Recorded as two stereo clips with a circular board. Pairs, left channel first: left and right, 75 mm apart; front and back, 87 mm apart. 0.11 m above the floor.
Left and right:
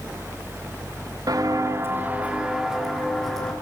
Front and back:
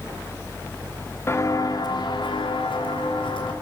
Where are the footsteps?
60° right, 1.6 m; by 3.5 s 5° left, 3 m.